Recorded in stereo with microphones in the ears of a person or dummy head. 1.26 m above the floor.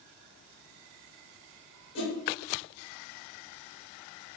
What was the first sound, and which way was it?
A whoosh, 75° left (ahead or behind).